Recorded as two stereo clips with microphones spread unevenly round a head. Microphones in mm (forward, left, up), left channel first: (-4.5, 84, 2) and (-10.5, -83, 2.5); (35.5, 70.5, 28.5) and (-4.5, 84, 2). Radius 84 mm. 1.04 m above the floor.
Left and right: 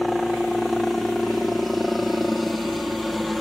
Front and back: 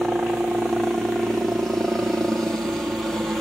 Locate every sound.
0.0 s a helicopter: straight behind